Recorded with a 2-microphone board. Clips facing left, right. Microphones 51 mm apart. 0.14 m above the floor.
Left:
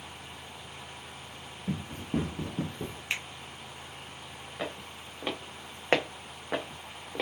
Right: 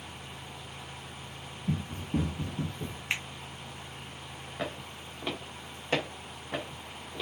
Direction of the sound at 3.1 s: 15° right (ahead or behind).